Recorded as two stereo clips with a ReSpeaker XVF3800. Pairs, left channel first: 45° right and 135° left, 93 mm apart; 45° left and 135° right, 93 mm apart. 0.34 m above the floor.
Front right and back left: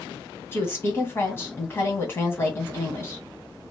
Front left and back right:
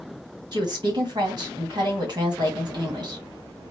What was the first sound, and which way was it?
A woman speaking, 105° right.